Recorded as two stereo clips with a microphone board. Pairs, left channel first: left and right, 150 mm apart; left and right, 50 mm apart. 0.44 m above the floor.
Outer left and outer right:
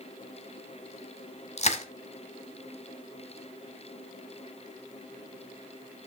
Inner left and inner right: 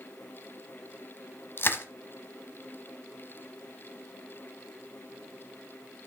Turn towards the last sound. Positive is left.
turn(degrees=50)  # may be behind; listen again after turning